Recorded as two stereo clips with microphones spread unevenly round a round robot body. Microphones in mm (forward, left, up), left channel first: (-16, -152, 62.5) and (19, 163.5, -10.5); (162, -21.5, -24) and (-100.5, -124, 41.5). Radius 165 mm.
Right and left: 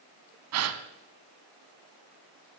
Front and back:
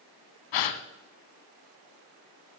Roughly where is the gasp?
Ahead left.